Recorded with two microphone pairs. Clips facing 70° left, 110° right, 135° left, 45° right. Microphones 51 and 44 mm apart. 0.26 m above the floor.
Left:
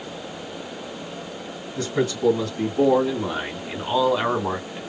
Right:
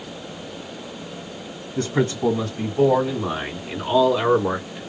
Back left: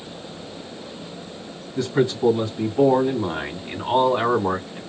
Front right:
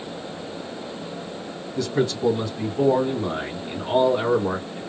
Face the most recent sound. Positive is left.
turn(degrees=140)